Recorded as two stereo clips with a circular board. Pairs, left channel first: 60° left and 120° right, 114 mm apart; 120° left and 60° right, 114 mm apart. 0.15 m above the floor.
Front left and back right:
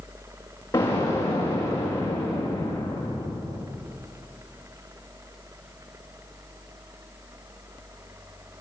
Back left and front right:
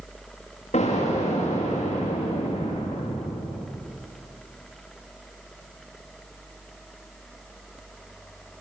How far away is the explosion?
About 9 m.